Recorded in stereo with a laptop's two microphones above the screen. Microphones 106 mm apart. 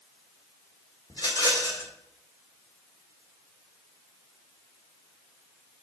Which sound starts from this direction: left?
A rattle, at 1.1 s.